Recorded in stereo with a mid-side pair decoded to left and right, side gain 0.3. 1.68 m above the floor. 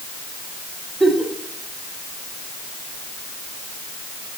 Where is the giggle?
20° right, 3 m.